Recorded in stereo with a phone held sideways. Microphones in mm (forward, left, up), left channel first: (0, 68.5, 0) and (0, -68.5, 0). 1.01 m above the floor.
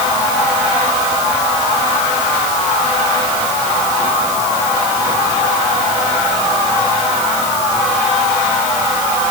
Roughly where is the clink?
I don't hear a clink.